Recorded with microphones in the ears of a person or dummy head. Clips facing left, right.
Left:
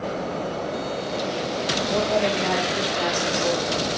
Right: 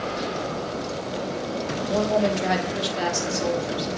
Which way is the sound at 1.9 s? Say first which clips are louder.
Right 1 dB; 20° right (ahead or behind).